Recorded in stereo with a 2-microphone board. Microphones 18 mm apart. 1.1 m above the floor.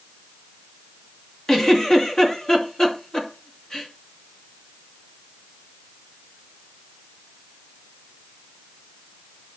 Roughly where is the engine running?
I don't hear an engine running.